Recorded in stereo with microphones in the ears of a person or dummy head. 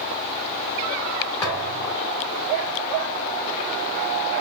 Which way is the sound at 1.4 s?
15° left (ahead or behind).